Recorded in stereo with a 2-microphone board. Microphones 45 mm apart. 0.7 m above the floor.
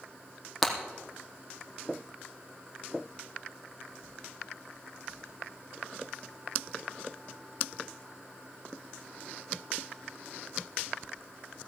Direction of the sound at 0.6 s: Centre (ahead or behind).